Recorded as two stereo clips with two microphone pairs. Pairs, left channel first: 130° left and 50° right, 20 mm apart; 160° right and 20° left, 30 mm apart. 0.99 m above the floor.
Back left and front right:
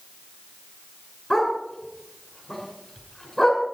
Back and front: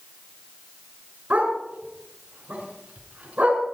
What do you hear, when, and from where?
1.3 s a dog barking: 65° left, 5 m